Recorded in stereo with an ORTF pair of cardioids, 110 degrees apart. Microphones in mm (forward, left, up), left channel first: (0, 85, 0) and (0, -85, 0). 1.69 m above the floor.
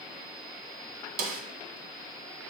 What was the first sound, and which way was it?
A snare drum, 65° right.